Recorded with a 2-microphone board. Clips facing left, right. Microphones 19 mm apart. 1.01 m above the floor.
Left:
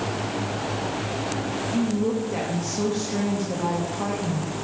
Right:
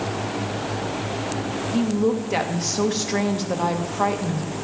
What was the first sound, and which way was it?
A woman speaking, 70° right (ahead or behind).